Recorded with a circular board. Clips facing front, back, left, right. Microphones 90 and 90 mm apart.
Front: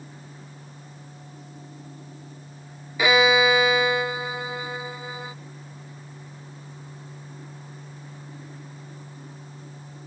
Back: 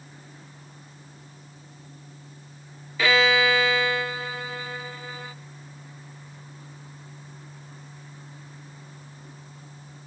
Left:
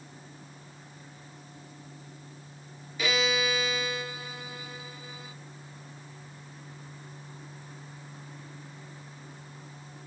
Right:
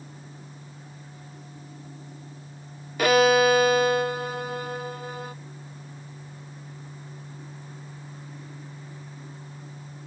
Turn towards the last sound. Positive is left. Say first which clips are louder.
# front 2 dB, right 11 dB
turn(degrees=-70)